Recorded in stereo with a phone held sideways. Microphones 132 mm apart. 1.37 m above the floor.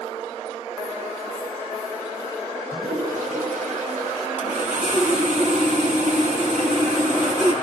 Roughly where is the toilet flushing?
Right.